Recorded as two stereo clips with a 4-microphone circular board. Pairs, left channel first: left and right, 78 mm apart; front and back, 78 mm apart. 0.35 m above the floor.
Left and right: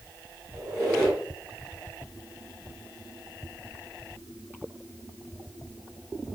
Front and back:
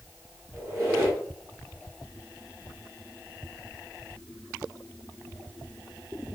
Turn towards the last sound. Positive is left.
turn(degrees=-140)